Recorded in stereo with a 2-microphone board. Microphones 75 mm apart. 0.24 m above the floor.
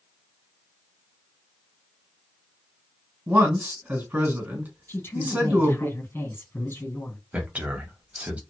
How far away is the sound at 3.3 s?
About 2.0 m.